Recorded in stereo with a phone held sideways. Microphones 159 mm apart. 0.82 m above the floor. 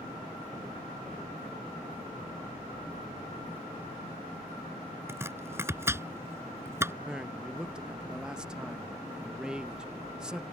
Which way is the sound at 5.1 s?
15° right (ahead or behind).